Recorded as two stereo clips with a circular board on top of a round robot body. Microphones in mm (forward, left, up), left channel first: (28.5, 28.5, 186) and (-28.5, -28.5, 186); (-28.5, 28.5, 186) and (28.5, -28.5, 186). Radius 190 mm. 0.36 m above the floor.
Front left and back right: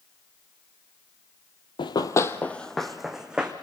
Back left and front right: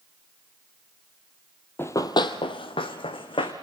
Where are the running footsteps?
70° left, 1.0 m; by 3.5 s 145° left, 2.5 m.